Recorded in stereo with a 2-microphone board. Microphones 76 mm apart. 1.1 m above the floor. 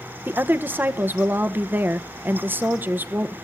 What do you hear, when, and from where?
0.2 s a woman speaking: 25° right (ahead or behind), 0.9 m